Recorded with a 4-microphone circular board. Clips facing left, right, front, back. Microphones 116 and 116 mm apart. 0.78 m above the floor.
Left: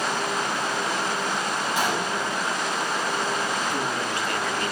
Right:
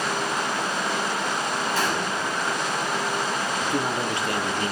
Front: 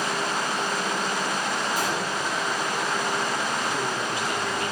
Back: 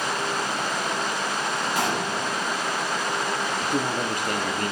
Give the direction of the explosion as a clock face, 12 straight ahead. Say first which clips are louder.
Even, back 1 dB; 7 o'clock.